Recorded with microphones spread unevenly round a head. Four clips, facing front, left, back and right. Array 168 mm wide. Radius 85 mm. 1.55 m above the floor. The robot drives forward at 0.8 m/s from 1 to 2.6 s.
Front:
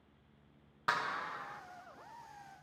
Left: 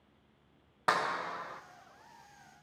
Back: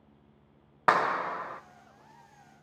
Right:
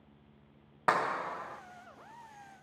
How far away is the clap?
About 0.8 m.